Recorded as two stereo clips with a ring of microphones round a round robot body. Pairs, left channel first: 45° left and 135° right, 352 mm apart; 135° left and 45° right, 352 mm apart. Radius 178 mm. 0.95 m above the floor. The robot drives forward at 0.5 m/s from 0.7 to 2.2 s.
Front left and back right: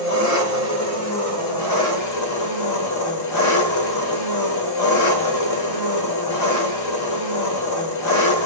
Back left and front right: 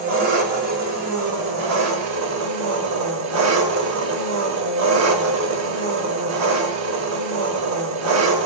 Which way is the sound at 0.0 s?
Straight ahead.